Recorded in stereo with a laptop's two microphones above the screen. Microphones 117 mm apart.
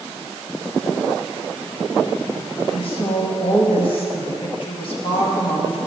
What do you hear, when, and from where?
2.7 s a woman speaking: 55° left (ahead or behind), 1.8 m